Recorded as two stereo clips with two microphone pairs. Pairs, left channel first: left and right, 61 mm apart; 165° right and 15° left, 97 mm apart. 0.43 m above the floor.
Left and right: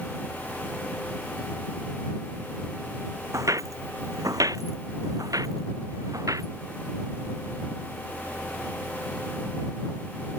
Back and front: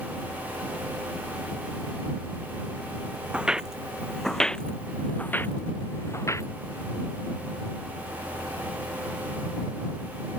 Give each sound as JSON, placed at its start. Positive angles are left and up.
{"t": 3.3, "sound": "footsteps", "azimuth_deg": -65}